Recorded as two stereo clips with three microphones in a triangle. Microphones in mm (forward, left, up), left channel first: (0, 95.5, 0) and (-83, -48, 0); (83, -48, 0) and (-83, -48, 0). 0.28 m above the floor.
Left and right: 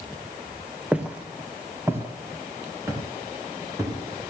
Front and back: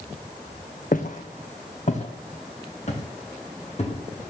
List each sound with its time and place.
0.9 s footsteps: 35° right, 1.9 m; by 4.0 s 50° right, 5 m